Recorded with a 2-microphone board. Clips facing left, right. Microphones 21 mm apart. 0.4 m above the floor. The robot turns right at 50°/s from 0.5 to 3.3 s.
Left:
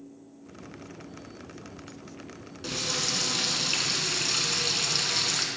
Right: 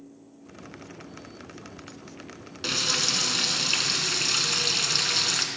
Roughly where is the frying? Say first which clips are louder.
Right 5 dB; ahead right.